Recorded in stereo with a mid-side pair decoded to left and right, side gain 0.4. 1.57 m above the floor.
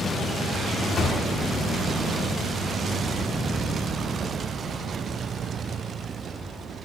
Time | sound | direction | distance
1.0 | a thud | 55° left | 4 m